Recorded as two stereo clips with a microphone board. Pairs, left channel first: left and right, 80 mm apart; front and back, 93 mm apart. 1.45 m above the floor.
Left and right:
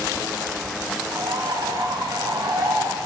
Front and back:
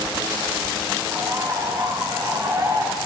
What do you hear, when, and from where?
1.1 s a bird: 125° right, 0.6 m